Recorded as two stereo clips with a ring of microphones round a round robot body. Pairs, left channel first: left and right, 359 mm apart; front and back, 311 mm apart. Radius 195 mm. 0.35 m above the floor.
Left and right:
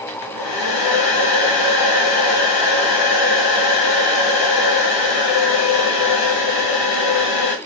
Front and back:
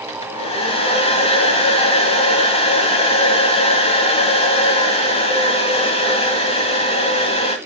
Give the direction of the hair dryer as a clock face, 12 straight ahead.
10 o'clock.